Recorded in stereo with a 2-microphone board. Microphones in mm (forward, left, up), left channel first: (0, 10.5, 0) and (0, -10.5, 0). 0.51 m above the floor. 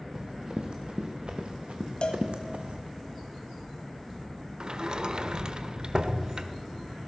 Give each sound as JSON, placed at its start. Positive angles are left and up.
{"t": 0.1, "sound": "running footsteps", "side_deg": -45, "distance_m": 2.5}
{"t": 2.0, "sound": "a cowbell", "side_deg": 55, "distance_m": 1.5}
{"t": 4.6, "sound": "a sliding door", "side_deg": -40, "distance_m": 0.9}